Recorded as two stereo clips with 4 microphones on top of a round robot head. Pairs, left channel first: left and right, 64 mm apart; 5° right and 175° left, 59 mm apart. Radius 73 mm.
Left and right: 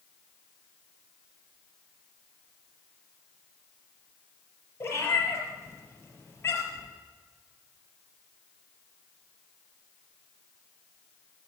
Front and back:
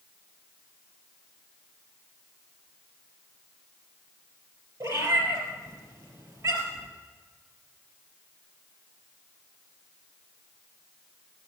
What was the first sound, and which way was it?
A cat meowing, 145° left.